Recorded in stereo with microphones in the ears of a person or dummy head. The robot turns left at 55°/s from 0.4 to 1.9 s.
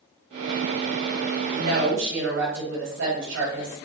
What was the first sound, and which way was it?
A woman speaking, 50° right (ahead or behind).